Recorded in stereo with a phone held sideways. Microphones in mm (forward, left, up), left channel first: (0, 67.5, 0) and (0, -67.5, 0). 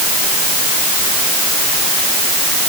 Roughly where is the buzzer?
No buzzer in this recording.